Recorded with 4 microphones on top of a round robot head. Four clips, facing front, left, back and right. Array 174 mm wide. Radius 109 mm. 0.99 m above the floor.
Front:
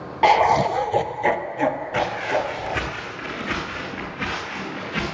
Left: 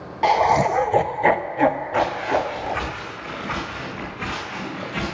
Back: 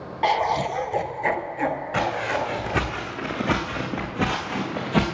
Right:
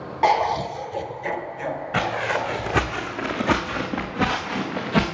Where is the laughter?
25° right, 0.6 m; by 2.9 s 80° left, 3.5 m.